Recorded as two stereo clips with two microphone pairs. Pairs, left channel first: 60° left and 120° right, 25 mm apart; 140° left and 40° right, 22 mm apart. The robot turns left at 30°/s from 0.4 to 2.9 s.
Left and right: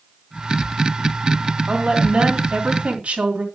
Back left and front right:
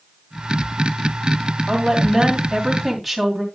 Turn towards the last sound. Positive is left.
turn(degrees=-130)